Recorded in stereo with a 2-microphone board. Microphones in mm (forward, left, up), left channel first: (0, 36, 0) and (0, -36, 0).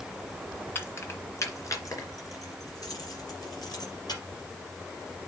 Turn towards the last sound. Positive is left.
turn(degrees=65)  # may be behind; listen again after turning